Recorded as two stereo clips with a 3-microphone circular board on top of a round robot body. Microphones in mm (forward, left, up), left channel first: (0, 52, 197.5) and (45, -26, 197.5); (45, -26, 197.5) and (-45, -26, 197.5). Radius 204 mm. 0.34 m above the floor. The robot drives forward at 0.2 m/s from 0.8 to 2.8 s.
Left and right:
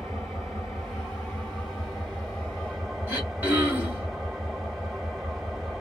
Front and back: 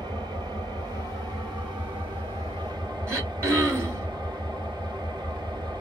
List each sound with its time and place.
0.0 s an engine running: 150° right, 1.7 m; by 5.8 s 155° right, 2 m
3.1 s throat clearing: 125° right, 2 m